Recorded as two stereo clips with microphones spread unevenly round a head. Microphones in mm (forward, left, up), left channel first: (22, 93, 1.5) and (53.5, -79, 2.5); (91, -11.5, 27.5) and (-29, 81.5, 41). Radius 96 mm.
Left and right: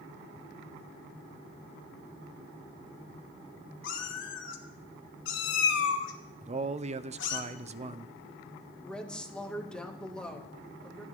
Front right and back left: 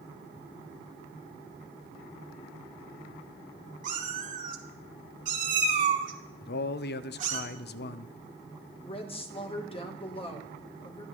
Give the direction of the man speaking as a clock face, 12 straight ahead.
1 o'clock.